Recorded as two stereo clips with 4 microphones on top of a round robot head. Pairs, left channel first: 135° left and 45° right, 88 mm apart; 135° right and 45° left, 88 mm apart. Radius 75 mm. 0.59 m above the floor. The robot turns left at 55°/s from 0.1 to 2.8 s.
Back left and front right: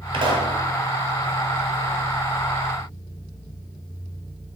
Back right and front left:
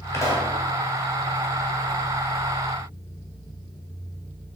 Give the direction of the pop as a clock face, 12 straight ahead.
2 o'clock.